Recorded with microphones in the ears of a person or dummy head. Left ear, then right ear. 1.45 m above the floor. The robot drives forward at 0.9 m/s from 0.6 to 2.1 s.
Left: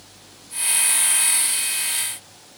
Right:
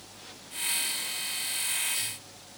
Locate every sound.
Only background noise.